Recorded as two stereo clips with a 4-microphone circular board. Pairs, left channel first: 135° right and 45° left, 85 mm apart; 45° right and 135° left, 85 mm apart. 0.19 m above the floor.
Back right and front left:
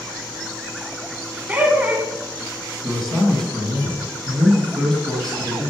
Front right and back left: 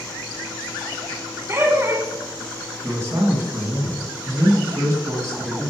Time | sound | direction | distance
1.5 | laughter | 105° left | 1.5 m
2.8 | a man speaking | 145° left | 1.9 m